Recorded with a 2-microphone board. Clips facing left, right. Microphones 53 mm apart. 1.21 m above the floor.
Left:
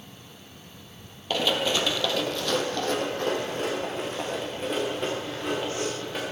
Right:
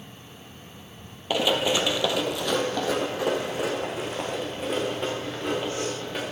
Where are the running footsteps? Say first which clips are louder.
Right 2 dB; 10° right (ahead or behind), 1.2 m; by 6.2 s 5° right (ahead or behind), 6 m.